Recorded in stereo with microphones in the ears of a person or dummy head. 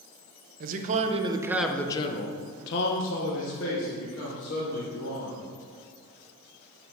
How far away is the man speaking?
About 0.9 m.